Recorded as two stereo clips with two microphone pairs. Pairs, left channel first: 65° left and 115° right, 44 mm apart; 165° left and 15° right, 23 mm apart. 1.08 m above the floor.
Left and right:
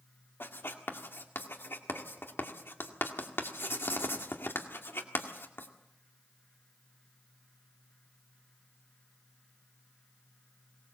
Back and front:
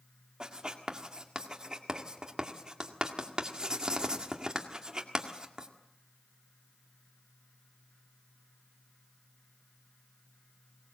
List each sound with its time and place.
0.4 s writing: 35° left, 1.9 m